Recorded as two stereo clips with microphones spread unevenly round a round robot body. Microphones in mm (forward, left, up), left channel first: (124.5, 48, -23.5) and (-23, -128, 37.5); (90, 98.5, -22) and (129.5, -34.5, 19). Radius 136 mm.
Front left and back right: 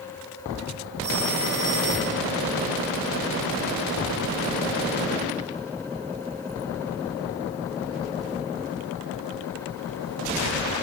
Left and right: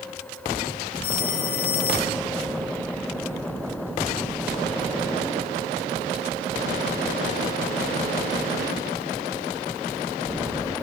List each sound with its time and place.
1.0 s a phone ringing: 150° left, 4.5 m